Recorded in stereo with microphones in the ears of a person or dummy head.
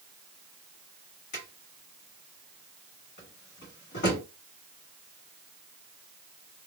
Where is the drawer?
55° left (ahead or behind), 1.9 m.